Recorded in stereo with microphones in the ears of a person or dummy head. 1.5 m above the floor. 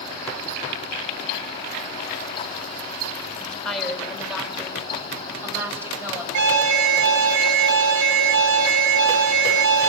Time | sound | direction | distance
3.4 | a woman speaking | 5° left (ahead or behind) | 5 m
6.3 | an alarm | 65° right (ahead or behind) | 7 m